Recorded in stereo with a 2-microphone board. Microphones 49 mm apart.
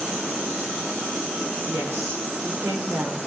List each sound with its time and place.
1.7 s a woman speaking: 75° right (ahead or behind), 5 m; by 3.2 s 85° right, 4.5 m